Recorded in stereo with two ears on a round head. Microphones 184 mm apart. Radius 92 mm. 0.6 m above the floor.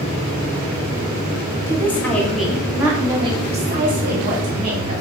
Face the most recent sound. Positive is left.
turn(degrees=-55)  # may be behind; listen again after turning